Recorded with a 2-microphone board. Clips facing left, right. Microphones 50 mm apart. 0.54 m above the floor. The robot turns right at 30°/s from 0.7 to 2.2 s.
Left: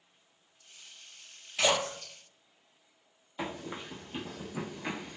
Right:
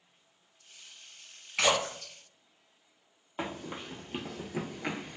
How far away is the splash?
About 1.1 m.